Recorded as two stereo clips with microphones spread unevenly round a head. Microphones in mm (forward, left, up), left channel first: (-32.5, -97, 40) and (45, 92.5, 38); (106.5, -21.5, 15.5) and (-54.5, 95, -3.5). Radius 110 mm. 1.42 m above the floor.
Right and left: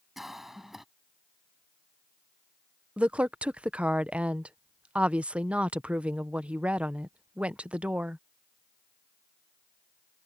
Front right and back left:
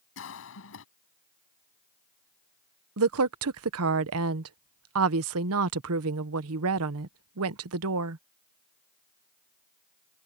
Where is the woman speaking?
150° left.